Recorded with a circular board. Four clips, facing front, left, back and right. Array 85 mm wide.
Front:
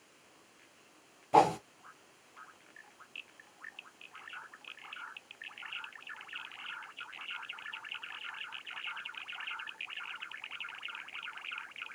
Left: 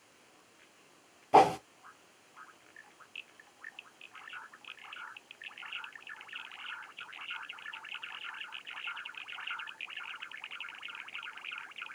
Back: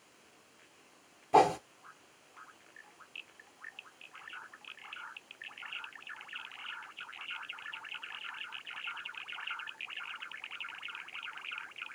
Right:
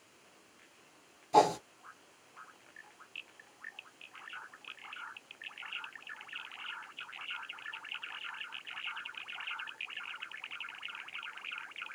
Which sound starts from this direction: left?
A whoosh, at 1.3 s.